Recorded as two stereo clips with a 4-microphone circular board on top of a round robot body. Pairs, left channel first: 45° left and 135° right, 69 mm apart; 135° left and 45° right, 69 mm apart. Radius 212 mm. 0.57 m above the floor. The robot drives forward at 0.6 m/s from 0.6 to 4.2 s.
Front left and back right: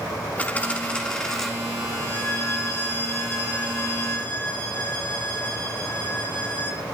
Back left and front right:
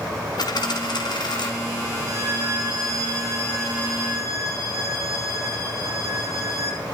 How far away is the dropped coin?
About 1.5 m.